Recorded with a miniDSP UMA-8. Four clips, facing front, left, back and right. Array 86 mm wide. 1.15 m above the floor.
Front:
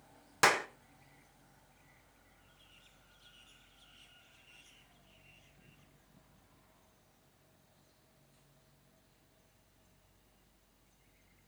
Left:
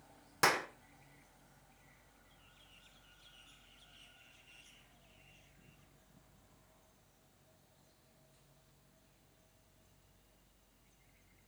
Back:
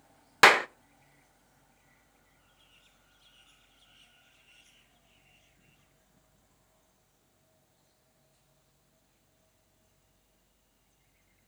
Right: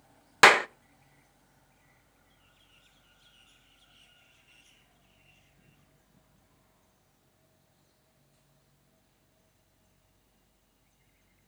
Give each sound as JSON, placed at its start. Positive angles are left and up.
{"t": 0.4, "sound": "a clap", "azimuth_deg": -125, "distance_m": 0.6}